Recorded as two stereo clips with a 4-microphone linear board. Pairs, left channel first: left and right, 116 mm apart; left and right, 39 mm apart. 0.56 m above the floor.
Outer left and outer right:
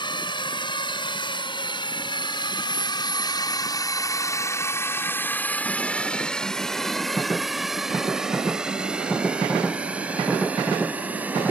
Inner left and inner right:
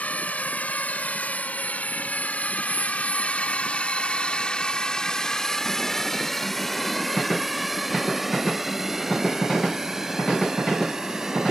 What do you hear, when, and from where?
0.0 s a drone: 45° left (ahead or behind); by 11.5 s 15° right (ahead or behind)